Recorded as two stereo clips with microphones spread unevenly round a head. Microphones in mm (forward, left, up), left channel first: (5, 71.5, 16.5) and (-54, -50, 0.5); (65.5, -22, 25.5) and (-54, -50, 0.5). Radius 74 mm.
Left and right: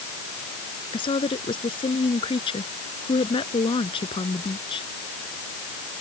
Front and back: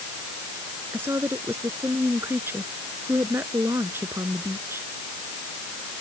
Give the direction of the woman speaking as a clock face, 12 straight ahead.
8 o'clock.